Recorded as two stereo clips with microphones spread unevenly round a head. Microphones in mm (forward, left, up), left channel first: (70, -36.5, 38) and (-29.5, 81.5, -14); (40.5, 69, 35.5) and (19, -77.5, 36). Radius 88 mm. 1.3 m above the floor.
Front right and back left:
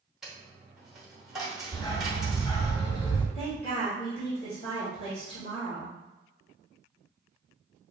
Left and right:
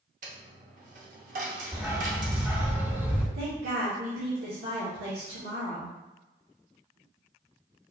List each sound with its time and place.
0.2 s a dropped coin: 125° right, 0.8 m
1.7 s a dog barking: 25° right, 1.5 m
3.4 s a woman speaking: 110° right, 1.7 m